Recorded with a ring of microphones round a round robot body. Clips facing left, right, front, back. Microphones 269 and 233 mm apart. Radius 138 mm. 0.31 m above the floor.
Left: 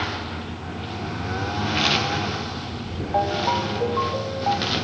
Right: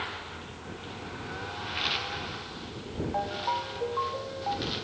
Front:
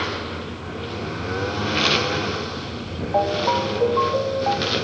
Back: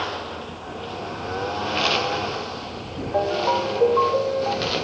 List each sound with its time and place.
0.0 s a lawn mower: 65° left; by 4.8 s 70° left
3.1 s a ringtone: 120° left